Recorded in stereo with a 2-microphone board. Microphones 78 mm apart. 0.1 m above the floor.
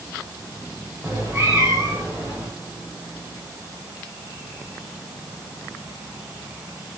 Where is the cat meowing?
35° right (ahead or behind), 5 m; by 2.5 s 30° right (ahead or behind), 6.5 m.